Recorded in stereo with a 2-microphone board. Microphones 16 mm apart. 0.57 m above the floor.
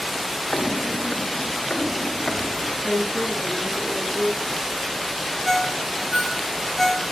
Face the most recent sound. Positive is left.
turn(degrees=0)  # may be behind; listen again after turning